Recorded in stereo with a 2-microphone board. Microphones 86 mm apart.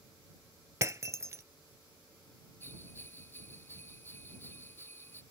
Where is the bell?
25° left (ahead or behind).